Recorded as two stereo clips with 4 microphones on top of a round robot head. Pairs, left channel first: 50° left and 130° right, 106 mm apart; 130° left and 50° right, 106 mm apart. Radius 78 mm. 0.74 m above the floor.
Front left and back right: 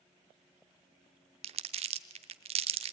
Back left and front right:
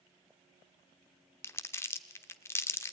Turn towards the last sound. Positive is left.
turn(degrees=-160)